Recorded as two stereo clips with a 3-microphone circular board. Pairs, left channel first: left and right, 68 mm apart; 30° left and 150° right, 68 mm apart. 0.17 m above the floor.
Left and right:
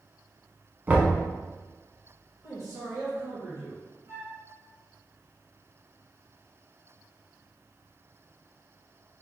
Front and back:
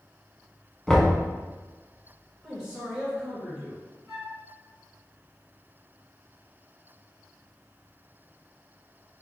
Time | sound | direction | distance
0.9 | knocking | 45° right | 0.8 m
2.4 | a man speaking | 70° right | 1.7 m
4.1 | a flute | 55° right | 1.9 m